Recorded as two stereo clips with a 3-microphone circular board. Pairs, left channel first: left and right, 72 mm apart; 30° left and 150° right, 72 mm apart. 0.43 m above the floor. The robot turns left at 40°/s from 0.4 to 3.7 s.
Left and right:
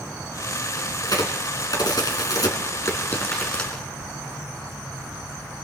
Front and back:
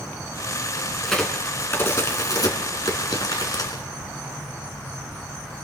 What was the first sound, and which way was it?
A crack, 115° left.